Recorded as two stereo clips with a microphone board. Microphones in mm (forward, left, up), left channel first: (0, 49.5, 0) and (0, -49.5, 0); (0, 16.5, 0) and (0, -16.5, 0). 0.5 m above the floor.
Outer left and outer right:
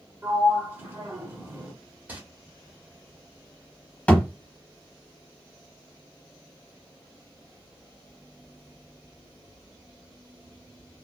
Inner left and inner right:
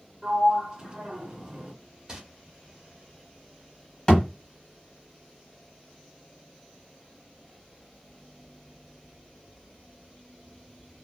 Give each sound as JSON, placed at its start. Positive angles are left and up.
{"t": 0.2, "sound": "a sliding door", "side_deg": -25, "distance_m": 0.8}
{"t": 2.1, "sound": "crumpling", "side_deg": -20, "distance_m": 0.9}
{"t": 4.1, "sound": "a thud", "side_deg": 15, "distance_m": 1.1}